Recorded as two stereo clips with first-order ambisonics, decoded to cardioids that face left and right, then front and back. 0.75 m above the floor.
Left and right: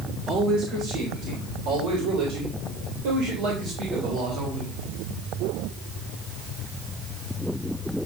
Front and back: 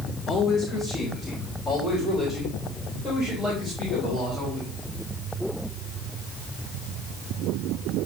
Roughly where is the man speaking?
Ahead right.